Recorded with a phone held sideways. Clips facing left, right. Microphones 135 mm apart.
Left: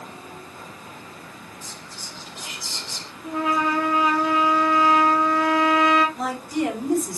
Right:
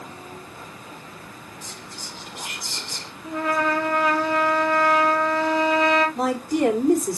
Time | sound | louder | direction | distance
1.6 | whispering | right 1 dB | 70° right (ahead or behind) | 3 m
3.2 | a trumpet | even | 10° left (ahead or behind) | 4.5 m
6.2 | a woman speaking | right 4 dB | 85° right | 3 m